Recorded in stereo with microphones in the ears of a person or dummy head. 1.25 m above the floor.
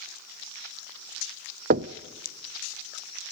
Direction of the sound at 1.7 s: 45° right (ahead or behind).